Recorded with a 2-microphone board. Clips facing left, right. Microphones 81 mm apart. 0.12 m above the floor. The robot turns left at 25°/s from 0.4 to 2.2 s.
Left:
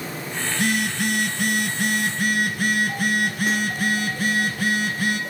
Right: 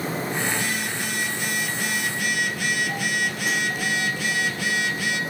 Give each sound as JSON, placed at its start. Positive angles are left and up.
{"t": 0.5, "sound": "a phone buzzing", "azimuth_deg": 100, "distance_m": 0.6}